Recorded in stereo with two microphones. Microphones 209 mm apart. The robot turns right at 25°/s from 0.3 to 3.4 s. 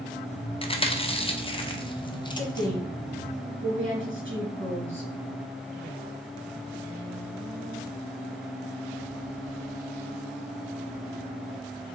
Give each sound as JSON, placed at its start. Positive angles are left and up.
{"t": 0.6, "sound": "chewing", "side_deg": 30, "distance_m": 0.5}
{"t": 2.4, "sound": "a woman speaking", "side_deg": -80, "distance_m": 2.0}